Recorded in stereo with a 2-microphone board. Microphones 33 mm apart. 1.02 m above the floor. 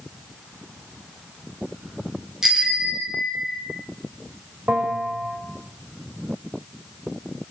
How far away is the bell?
About 6 m.